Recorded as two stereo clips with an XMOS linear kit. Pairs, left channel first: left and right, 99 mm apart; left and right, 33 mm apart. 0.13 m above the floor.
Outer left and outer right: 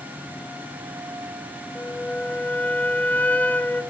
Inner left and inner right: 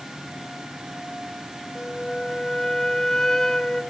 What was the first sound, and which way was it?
A flute, 15° left (ahead or behind).